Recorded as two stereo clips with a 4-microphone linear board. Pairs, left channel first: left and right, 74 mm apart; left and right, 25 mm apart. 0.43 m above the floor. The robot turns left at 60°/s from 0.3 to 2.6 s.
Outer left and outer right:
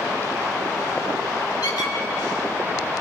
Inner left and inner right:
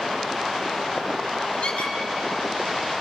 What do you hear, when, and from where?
1.6 s a squeak: 65° left (ahead or behind), 1.8 m